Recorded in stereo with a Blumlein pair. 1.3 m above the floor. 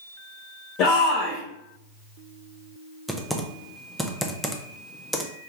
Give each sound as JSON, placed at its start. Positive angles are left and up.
{"t": 0.8, "sound": "a shout", "azimuth_deg": 40, "distance_m": 0.8}
{"t": 3.1, "sound": "typing on a keyboard", "azimuth_deg": 0, "distance_m": 0.6}